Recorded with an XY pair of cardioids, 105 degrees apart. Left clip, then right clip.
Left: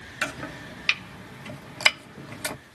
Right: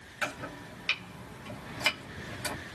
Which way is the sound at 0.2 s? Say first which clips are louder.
Left 4 dB; 55° left.